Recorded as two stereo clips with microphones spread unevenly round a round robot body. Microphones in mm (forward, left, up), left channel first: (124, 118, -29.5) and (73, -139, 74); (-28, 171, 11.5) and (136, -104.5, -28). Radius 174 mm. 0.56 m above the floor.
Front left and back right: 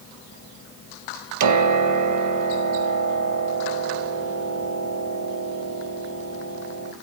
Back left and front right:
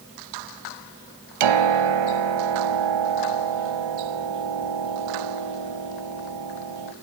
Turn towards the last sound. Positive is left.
turn(degrees=-85)